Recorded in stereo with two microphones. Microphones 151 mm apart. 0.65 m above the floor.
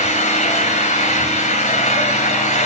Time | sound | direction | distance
0.0 | an engine running | 50° left (ahead or behind) | 3 m